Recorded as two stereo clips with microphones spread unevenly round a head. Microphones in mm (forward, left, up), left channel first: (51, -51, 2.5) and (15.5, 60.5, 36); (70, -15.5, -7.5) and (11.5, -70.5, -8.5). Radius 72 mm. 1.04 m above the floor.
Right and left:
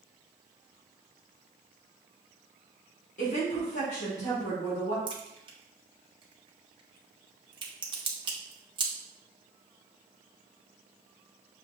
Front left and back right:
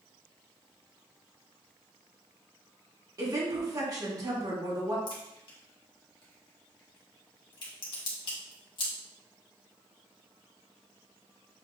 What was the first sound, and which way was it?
A woman speaking, 95° right.